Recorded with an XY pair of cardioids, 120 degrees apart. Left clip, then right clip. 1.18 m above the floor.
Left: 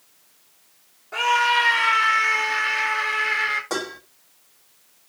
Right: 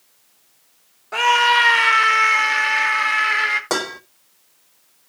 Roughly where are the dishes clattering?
Ahead right.